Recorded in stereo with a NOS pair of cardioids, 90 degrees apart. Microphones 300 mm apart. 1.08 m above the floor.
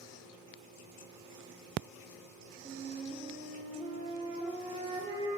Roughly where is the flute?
Ahead.